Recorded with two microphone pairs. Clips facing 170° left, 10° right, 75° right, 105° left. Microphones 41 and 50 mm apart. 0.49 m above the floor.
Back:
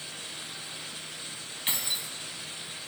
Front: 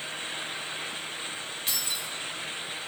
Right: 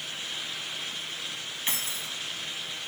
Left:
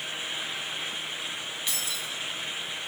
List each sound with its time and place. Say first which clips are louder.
1.7 s keys jangling: back 2 dB, right 2 dB; 130° right, 2.5 m